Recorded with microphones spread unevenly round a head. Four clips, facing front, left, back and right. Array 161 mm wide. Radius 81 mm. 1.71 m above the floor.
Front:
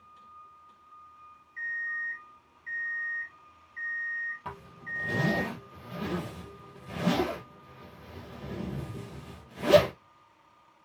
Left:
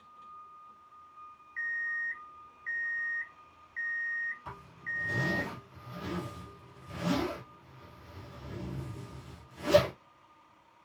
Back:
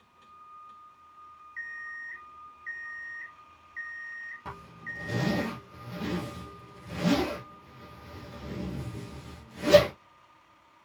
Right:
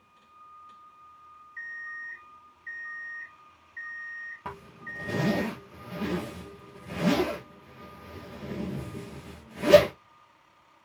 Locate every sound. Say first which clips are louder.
1.6 s an alarm clock: left 5 dB, front 6 dB; 100° left, 1.6 m
4.5 s a zipper: right 3 dB, front 1 dB; 90° right, 5 m